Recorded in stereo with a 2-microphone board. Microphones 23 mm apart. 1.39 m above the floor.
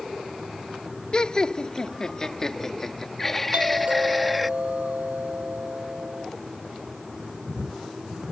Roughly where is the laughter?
Left.